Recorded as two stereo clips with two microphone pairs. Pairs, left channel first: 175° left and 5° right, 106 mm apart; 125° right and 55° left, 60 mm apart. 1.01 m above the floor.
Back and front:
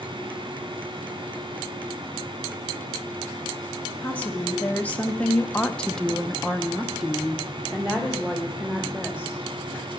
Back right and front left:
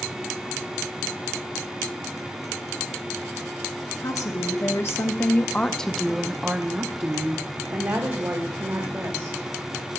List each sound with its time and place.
4.0 s a woman speaking: 110° right, 1.2 m; by 9.5 s 75° left, 1.9 m